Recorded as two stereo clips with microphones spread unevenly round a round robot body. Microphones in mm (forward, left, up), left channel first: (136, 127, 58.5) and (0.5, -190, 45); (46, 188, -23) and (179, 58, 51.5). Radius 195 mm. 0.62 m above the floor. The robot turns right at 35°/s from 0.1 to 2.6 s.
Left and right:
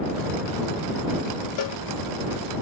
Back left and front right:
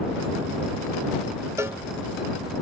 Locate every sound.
1.6 s a cowbell: 45° left; by 1.8 s 55° left